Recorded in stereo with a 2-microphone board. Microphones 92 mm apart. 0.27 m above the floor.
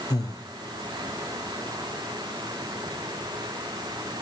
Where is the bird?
I don't hear a bird.